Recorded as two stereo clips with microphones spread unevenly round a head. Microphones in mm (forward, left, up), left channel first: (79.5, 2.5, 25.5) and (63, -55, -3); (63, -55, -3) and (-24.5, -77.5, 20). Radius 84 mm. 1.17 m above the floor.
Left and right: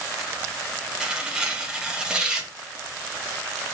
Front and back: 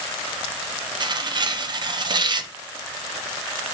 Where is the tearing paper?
135° right, 0.7 m.